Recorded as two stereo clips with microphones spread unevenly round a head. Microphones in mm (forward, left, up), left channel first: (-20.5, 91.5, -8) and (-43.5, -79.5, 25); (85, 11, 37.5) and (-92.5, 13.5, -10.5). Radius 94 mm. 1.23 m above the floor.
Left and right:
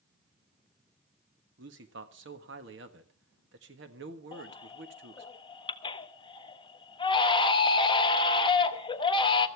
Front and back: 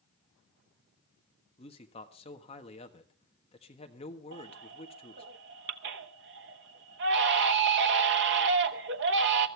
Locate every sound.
1.6 s a man speaking: 65° right, 1.6 m
4.3 s a baby crying: 150° left, 1.1 m